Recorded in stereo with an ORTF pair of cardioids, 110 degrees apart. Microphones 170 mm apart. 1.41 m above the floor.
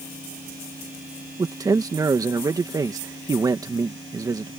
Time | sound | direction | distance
1.4 | a man speaking | 20° right | ?